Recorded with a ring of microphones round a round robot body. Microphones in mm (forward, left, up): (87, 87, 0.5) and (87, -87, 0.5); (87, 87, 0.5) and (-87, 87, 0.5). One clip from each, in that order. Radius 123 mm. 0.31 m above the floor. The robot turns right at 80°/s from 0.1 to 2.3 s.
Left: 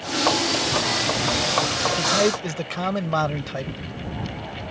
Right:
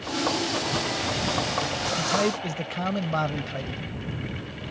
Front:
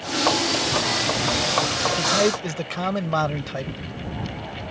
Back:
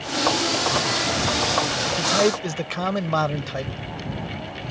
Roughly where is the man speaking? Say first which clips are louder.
Left 3 dB, back 2 dB; left.